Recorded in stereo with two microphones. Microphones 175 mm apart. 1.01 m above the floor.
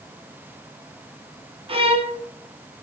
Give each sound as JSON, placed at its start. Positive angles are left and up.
{"t": 1.7, "sound": "a violin", "side_deg": -30, "distance_m": 0.5}